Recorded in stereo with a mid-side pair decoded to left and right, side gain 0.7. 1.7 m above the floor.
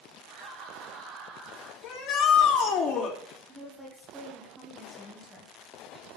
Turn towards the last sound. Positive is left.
turn(degrees=-10)